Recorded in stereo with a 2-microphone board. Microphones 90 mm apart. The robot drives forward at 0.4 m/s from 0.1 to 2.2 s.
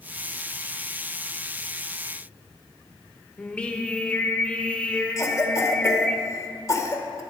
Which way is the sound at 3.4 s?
15° left (ahead or behind).